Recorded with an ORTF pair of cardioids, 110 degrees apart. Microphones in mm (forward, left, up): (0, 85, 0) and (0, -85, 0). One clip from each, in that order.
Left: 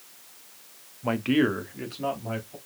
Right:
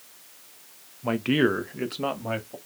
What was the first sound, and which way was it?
A man speaking, 5° left.